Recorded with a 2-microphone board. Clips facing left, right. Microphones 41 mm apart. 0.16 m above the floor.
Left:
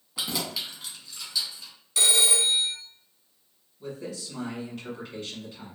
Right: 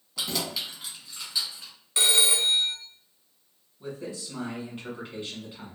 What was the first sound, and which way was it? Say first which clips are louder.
Keys jangling: even; 20° left (ahead or behind).